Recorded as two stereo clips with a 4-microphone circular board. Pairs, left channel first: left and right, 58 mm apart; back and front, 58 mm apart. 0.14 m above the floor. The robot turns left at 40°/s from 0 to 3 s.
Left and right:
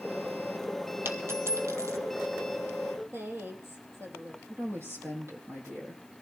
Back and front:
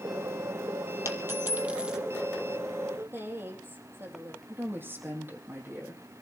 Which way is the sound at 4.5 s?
50° right.